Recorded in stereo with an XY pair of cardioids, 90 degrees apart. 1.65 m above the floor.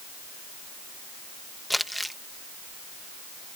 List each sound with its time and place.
1.7 s crumpling: straight ahead